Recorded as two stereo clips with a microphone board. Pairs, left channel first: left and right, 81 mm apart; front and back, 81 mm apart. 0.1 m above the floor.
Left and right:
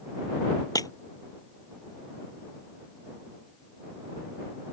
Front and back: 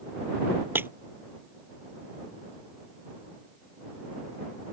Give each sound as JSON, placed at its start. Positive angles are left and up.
{"t": 0.8, "sound": "breaking glass", "azimuth_deg": 120}